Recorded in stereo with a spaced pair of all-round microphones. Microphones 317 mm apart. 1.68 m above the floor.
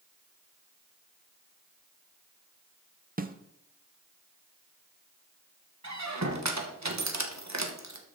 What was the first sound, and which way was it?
A snare drum, 25° right (ahead or behind).